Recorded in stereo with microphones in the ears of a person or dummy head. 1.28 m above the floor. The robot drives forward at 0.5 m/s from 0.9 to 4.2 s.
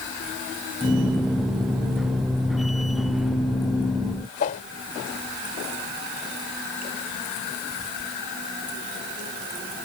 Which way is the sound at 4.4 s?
40° left (ahead or behind).